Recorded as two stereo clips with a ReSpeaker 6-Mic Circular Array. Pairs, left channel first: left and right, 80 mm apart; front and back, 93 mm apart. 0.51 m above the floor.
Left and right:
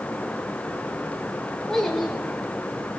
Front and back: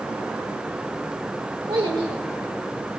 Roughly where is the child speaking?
Behind.